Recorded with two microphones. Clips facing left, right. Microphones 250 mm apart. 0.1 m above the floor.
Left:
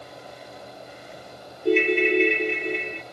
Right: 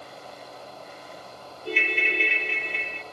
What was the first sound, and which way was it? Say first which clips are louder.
A ringtone: left 12 dB; 50° left (ahead or behind).